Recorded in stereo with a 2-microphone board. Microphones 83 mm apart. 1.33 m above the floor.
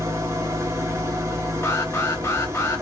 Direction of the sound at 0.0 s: 40° right (ahead or behind).